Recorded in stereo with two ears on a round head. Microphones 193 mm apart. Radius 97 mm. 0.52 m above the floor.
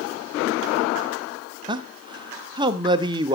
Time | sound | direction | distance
1.7 | a man speaking | 20° right (ahead or behind) | 0.9 m